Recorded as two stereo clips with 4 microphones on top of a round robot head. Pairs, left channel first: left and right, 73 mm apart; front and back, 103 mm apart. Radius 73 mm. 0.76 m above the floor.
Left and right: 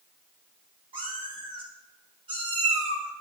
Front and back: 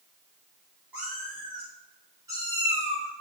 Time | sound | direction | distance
0.9 | a cat meowing | 100° right | 4 m